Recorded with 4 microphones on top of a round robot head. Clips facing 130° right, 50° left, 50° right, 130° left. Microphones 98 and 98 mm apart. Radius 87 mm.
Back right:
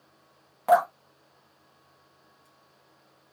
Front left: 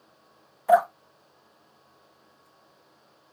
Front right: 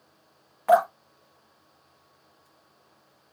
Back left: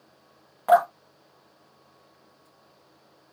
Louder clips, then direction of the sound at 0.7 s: Front left 1 dB, back left 1 dB; 160° right.